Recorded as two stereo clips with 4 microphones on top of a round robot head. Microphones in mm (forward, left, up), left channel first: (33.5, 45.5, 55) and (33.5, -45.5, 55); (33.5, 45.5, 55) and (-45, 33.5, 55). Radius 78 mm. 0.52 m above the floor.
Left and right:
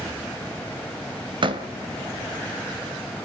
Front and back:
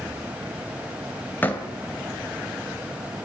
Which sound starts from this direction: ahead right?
A door slam, at 1.4 s.